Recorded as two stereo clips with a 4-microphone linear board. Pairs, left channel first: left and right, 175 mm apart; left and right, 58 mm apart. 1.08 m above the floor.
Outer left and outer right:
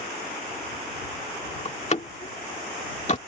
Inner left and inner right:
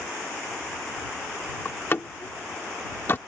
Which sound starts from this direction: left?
A door slam, at 1.6 s.